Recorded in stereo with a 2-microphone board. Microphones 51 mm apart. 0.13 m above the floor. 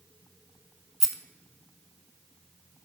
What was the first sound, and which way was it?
A rattle, 5° right (ahead or behind).